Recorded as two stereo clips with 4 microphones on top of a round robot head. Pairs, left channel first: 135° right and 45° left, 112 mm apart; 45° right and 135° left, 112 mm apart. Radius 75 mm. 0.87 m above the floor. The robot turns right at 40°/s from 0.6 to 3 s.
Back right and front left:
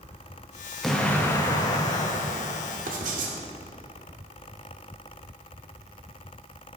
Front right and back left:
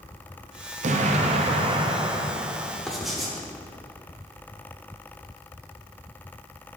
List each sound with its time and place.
0.8 s an explosion: 140° left, 0.7 m; by 2.8 s 145° right, 0.7 m
2.9 s writing: 40° left, 1.0 m; by 3.4 s 45° left, 1.0 m